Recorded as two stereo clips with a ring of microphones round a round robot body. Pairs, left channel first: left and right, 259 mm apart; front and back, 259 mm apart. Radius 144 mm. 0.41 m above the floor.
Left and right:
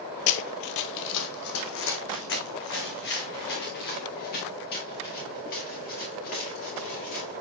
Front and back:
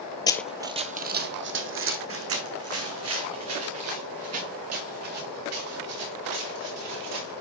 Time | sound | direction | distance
0.3 | running footsteps | 70° left | 0.6 m